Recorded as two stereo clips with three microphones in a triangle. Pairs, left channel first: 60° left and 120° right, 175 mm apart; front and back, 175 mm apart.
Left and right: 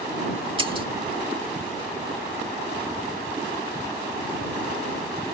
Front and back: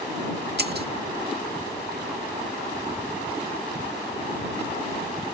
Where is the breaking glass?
Straight behind.